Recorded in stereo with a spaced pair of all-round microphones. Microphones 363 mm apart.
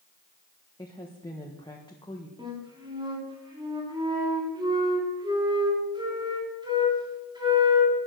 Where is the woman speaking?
10° left (ahead or behind), 1.4 m.